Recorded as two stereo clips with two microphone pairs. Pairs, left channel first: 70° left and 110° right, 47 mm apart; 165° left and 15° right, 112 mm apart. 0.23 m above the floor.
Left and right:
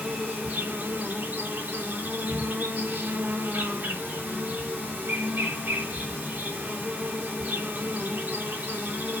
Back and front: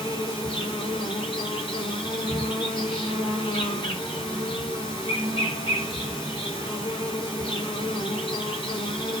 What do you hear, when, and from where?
0.0 s an insect: 155° right, 5.5 m